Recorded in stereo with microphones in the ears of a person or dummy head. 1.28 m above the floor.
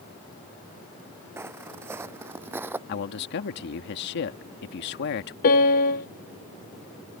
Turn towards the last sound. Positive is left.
turn(degrees=45)  # may be behind; listen again after turning